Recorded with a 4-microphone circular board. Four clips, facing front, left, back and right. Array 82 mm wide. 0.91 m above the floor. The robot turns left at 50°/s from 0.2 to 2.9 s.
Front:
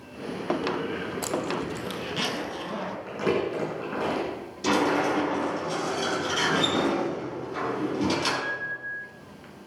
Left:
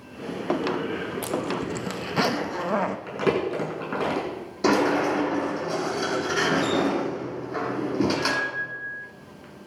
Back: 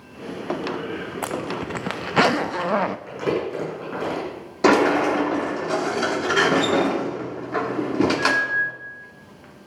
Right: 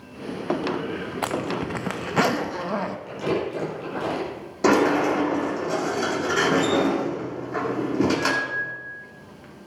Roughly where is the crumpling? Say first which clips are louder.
Left 1 dB, back 2 dB; left.